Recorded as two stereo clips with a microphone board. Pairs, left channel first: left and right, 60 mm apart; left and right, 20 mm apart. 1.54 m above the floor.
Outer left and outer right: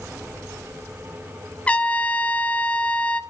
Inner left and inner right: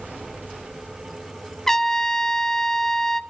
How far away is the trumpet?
About 1.1 m.